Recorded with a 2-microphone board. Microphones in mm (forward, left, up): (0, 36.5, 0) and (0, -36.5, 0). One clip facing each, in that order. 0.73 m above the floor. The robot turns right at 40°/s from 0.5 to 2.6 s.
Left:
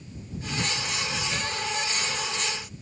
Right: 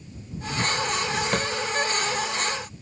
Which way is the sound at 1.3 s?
65° right (ahead or behind).